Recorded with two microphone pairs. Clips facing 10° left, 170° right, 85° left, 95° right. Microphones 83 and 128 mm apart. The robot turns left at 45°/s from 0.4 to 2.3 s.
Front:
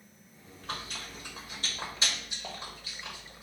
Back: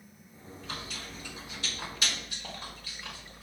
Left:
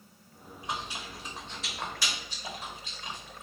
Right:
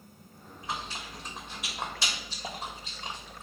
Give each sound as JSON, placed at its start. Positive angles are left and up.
{"t": 0.6, "sound": "chewing", "azimuth_deg": 25, "distance_m": 1.3}